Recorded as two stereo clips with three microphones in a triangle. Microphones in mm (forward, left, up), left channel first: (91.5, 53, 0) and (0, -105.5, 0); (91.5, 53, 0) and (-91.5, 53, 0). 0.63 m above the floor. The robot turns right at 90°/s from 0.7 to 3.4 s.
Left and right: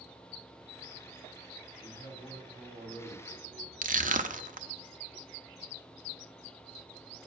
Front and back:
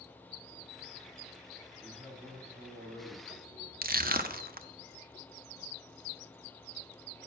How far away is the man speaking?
About 2 m.